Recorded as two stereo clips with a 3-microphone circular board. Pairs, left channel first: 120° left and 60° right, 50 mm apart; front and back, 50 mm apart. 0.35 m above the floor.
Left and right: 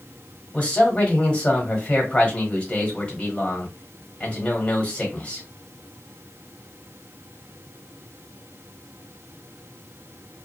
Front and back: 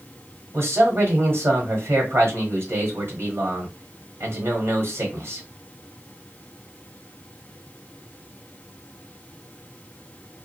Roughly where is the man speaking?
Behind.